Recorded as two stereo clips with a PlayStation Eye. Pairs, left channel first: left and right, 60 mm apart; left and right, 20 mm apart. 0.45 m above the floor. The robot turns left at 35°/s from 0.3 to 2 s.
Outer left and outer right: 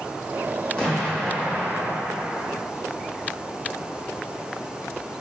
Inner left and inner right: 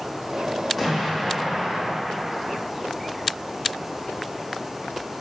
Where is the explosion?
20° left, 1.4 m; by 2.6 s 25° right, 1.4 m.